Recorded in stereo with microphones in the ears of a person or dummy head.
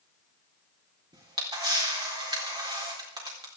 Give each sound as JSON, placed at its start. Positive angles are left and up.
{"t": 1.1, "sound": "a camera shutter", "side_deg": -25, "distance_m": 4.0}